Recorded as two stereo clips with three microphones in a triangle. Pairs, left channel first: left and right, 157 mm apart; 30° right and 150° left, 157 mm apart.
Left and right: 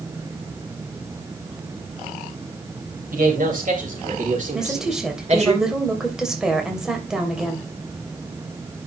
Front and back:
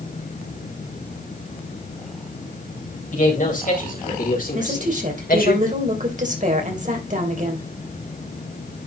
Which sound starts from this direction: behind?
A woman speaking, at 4.5 s.